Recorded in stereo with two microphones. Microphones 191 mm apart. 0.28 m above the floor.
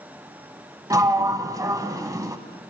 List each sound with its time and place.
0.9 s a sliding door: 20° right (ahead or behind), 0.9 m